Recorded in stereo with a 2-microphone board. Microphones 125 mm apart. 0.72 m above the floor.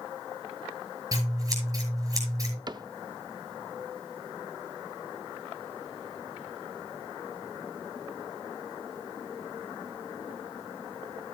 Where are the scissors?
30° right (ahead or behind), 6 m.